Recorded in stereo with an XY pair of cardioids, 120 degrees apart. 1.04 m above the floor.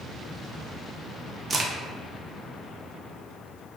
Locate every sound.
1.5 s a crack: 30° right, 0.5 m